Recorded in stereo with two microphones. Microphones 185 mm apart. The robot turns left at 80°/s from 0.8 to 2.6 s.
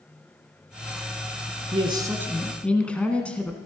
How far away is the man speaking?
About 1.2 m.